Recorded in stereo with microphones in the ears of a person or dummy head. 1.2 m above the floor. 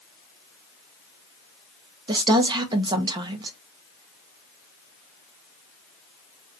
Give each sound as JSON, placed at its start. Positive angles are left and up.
{"t": 2.1, "sound": "a woman speaking", "side_deg": -25, "distance_m": 0.9}